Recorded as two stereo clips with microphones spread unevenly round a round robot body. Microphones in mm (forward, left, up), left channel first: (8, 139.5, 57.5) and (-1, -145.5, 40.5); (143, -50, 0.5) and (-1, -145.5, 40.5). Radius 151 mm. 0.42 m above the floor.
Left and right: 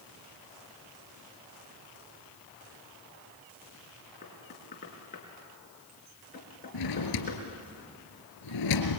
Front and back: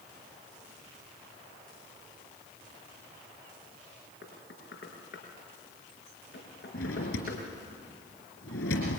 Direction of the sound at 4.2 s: 25° left.